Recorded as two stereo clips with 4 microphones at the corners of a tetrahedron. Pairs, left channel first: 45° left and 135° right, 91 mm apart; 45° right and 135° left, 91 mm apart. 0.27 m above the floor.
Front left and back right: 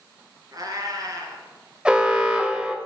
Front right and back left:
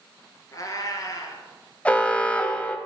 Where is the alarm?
80° right, 1.2 m.